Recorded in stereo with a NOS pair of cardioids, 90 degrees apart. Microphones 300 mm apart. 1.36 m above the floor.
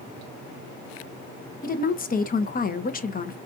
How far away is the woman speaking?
About 1.0 m.